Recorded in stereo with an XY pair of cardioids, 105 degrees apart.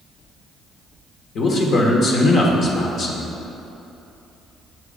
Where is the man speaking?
50° left, 1.1 m.